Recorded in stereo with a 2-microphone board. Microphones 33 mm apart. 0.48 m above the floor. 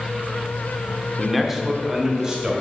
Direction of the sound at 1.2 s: 5° left (ahead or behind).